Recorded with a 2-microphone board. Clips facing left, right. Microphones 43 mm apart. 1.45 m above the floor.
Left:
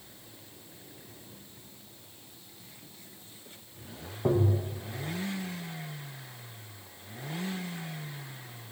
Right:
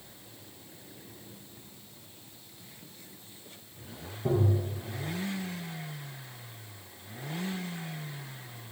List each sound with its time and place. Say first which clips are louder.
4.2 s tapping: left 1 dB; 55° left (ahead or behind), 0.9 m